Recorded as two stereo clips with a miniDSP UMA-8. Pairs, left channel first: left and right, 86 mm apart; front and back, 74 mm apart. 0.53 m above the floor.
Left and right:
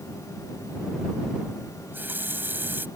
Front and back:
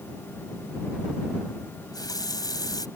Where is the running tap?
25° right.